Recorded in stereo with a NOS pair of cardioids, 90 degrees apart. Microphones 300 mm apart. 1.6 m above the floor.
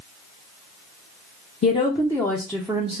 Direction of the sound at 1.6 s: 25° left.